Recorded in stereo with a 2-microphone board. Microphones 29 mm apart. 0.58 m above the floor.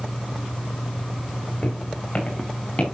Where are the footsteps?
50° left (ahead or behind), 5 m; by 2.8 s 40° left (ahead or behind), 4.5 m.